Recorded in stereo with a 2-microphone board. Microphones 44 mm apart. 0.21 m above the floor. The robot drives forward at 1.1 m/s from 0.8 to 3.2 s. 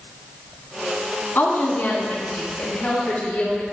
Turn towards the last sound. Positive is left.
turn(degrees=35)  # may be behind; listen again after turning